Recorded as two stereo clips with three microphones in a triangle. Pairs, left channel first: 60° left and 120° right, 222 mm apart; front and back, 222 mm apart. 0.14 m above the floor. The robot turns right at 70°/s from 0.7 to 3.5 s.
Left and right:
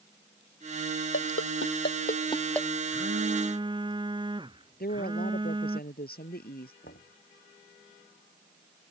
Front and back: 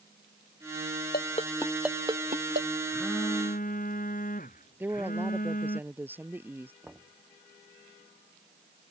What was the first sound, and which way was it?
A ringtone, 45° left.